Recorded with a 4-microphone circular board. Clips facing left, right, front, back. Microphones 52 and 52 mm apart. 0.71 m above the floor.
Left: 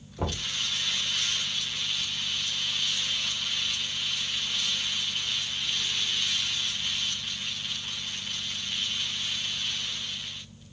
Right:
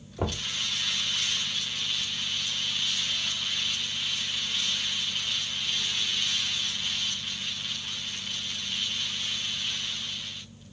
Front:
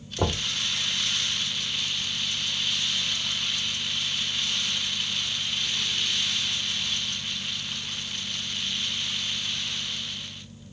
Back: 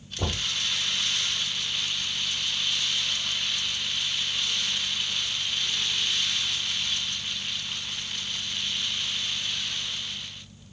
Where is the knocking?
15° right, 1.4 m.